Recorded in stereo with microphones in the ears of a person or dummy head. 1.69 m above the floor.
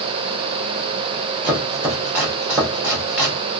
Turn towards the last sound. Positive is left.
turn(degrees=-15)  # may be behind; listen again after turning